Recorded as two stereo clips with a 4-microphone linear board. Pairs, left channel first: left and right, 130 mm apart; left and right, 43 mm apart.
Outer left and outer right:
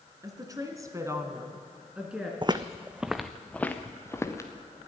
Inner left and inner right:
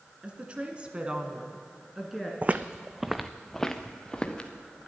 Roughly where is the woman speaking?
Right.